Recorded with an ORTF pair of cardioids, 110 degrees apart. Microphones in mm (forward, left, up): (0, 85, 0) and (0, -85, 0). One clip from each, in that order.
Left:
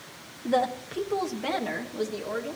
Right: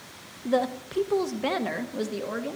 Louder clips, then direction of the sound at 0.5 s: Even; 5° left.